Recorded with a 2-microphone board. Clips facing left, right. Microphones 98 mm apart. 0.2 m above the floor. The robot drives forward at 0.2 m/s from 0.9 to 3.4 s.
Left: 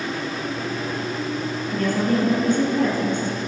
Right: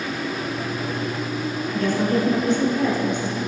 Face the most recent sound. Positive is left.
turn(degrees=45)  # may be behind; listen again after turning